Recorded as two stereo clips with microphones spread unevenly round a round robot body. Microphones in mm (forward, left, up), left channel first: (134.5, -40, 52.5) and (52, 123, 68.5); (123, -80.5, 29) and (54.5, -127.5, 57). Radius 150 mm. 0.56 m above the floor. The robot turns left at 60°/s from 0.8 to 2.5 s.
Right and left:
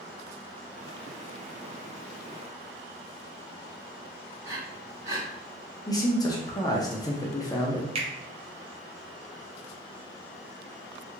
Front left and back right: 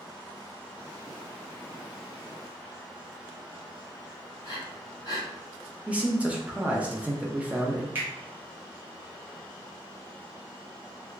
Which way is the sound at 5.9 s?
45° right.